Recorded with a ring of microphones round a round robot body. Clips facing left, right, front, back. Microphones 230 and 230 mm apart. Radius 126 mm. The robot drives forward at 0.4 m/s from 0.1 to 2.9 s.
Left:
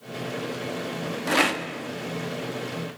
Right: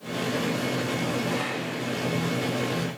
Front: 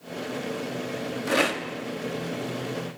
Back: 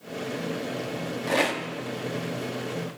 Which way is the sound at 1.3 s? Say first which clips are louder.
Left 3 dB, front 1 dB; 75° left.